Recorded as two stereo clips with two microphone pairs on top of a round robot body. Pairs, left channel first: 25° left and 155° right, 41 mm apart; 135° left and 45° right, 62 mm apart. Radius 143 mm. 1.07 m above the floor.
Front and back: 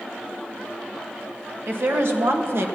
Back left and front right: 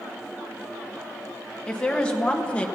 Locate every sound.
1.7 s a woman speaking: 150° right, 2 m; by 2.7 s 155° right, 1.4 m